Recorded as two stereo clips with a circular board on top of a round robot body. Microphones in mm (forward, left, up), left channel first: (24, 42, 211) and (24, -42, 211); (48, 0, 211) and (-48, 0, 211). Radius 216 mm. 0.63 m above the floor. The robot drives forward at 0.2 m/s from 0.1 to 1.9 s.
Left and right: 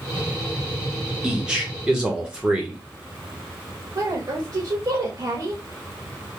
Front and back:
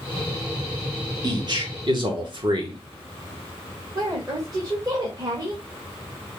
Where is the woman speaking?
135° right, 1.3 m.